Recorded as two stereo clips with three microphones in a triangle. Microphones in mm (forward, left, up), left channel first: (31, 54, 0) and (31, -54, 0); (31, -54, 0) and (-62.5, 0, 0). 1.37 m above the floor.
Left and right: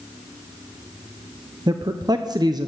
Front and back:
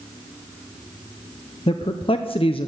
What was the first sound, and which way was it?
A man speaking, 45° right.